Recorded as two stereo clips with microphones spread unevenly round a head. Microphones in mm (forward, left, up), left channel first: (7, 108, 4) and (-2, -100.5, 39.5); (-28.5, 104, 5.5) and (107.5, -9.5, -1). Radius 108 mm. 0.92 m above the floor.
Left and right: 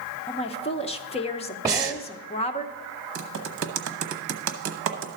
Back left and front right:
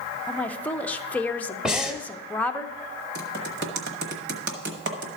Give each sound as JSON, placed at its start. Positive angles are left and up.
{"t": 0.3, "sound": "a woman speaking", "azimuth_deg": 60, "distance_m": 0.7}
{"t": 1.6, "sound": "breathing", "azimuth_deg": -125, "distance_m": 0.7}
{"t": 3.1, "sound": "typing on a keyboard", "azimuth_deg": -70, "distance_m": 1.0}